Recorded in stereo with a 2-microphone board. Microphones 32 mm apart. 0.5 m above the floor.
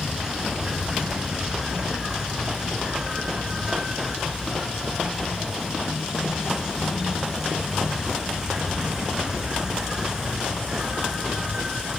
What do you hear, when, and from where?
0.0 s an insect: 25° right (ahead or behind)